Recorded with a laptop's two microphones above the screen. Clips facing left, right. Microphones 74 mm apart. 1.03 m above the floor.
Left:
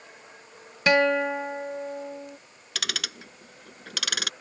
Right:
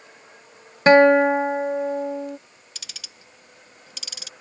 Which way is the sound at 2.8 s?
75° left (ahead or behind).